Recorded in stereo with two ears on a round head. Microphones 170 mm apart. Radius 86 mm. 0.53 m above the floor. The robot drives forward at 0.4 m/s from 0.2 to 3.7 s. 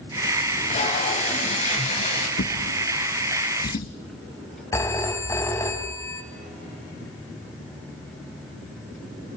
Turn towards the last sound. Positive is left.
turn(degrees=15)  # may be behind; listen again after turning